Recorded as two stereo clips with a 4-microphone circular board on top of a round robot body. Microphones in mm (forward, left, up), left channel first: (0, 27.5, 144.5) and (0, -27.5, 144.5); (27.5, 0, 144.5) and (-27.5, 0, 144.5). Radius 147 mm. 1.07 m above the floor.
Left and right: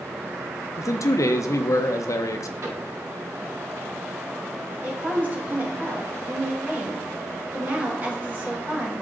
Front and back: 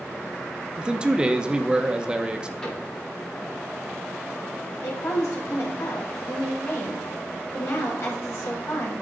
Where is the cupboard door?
75° right, 5.5 m.